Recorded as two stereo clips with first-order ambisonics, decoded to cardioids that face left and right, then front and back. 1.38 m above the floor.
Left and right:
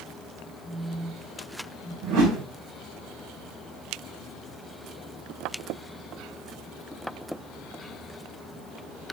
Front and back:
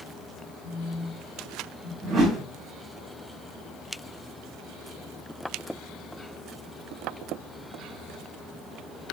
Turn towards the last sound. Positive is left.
turn(degrees=-105)